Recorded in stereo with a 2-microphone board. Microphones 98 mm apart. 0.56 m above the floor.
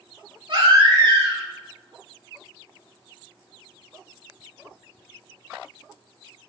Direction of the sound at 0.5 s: 55° right (ahead or behind).